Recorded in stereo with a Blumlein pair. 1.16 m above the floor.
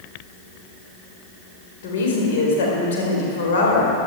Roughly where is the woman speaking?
Ahead left.